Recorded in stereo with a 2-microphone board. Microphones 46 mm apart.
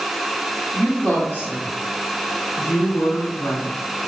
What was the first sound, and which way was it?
A woman speaking, 20° left (ahead or behind).